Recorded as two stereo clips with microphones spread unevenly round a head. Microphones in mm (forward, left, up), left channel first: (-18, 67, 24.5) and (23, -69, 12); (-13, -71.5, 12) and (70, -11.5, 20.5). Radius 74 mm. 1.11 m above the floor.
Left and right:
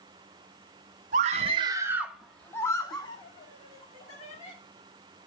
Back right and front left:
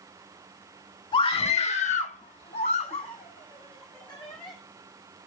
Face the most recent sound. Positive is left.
turn(degrees=150)